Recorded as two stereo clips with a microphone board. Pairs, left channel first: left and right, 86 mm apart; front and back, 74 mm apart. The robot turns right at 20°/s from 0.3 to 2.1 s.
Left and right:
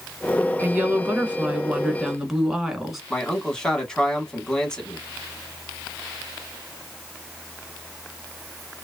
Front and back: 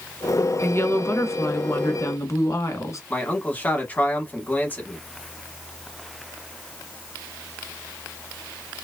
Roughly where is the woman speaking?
Ahead right.